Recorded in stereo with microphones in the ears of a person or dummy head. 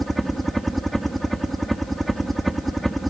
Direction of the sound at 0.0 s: Centre (ahead or behind).